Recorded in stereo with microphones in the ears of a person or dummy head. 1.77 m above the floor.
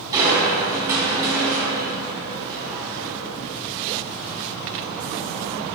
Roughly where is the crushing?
Centre.